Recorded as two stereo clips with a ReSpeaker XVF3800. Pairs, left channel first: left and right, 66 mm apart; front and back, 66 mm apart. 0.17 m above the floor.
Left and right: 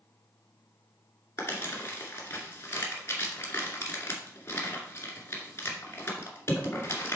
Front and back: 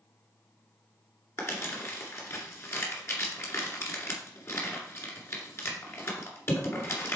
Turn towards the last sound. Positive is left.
turn(degrees=40)